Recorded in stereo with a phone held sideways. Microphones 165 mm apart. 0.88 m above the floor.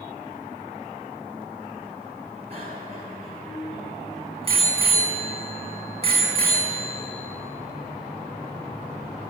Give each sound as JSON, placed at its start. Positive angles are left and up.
{"t": 2.5, "sound": "a bicycle bell", "side_deg": -35, "distance_m": 6.0}